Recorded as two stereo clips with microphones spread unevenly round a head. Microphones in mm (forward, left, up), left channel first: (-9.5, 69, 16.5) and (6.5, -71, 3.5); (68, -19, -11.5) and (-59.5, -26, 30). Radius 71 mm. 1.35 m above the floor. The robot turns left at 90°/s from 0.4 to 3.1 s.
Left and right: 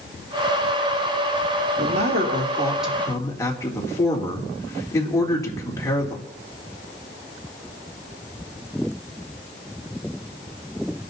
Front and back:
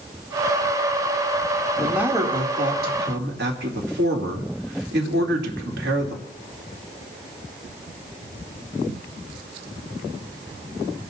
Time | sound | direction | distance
1.8 | a man speaking | 75° right | 2.5 m